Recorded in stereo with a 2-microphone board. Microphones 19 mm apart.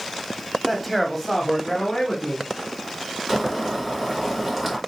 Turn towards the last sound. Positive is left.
turn(degrees=-10)  # may be behind; listen again after turning